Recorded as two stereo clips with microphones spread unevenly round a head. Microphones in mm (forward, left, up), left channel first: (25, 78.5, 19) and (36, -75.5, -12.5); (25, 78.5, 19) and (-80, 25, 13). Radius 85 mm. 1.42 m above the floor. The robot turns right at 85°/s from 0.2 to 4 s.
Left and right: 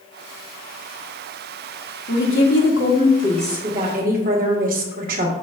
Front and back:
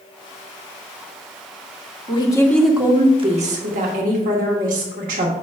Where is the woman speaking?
70° left, 1.7 m; by 5.3 s 130° right, 1.7 m.